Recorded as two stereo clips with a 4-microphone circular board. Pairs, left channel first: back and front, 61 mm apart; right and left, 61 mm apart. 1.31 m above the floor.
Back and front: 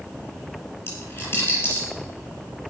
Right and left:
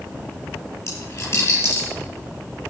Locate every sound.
0.9 s a dropped coin: 125° right, 6.5 m